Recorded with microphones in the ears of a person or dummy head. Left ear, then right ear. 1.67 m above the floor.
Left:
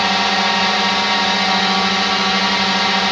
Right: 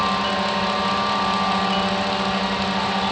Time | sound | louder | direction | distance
0.0 | a drone | left 6 dB | 65° left (ahead or behind) | ?